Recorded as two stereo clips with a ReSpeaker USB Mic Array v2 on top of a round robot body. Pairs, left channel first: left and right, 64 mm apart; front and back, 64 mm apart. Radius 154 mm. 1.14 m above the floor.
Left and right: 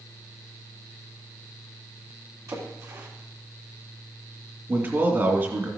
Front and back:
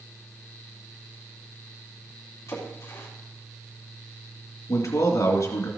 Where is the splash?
50° right, 3 m.